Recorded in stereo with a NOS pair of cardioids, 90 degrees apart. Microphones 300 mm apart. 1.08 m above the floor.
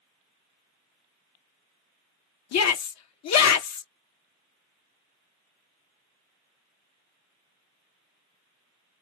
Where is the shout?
65° left, 1.0 m.